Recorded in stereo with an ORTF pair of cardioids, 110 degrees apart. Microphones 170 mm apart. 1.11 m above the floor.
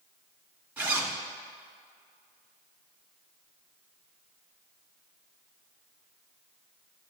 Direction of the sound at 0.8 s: 10° right.